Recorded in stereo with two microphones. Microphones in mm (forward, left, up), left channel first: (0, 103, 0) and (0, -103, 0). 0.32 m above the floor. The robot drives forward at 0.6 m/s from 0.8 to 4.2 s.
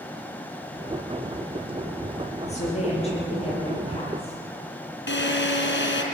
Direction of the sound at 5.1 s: 65° left (ahead or behind).